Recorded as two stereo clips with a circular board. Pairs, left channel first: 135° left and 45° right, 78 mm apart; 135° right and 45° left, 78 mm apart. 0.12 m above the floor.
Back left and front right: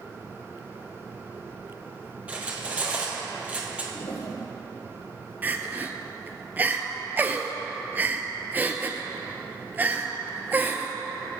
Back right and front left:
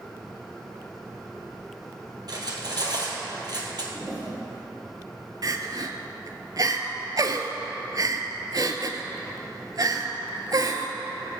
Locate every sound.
2.3 s cutlery clinking: 25° left, 1.8 m
3.9 s a toilet flushing: 115° left, 2.5 m
5.4 s crying: 20° left, 0.7 m